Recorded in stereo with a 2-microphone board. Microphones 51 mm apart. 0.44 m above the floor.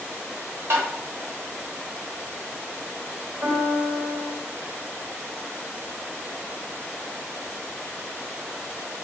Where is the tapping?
60° right (ahead or behind), 1.2 m.